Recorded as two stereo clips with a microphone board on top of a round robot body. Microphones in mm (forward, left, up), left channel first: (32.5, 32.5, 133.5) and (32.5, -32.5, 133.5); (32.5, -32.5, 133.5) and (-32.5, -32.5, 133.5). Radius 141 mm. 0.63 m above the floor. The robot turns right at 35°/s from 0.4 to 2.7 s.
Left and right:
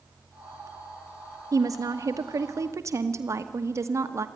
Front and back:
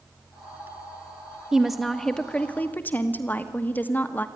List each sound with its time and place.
1.5 s a woman speaking: 100° right, 1.3 m; by 4.3 s 60° right, 1.3 m